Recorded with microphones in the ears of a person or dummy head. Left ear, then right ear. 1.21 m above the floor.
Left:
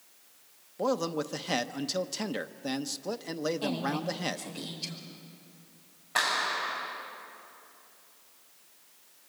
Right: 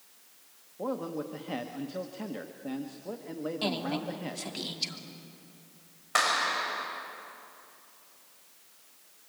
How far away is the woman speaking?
About 3.5 m.